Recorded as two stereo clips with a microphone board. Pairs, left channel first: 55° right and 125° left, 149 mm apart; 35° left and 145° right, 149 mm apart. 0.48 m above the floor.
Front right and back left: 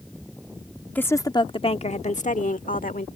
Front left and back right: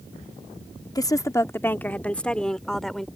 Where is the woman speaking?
10° left; by 3.1 s 55° right.